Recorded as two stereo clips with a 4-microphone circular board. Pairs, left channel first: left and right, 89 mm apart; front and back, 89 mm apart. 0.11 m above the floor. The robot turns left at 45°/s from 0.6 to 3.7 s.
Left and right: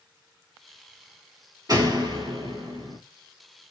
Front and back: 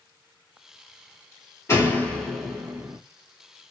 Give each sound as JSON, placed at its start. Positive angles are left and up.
{"t": 1.7, "sound": "a door slam", "azimuth_deg": -55, "distance_m": 1.6}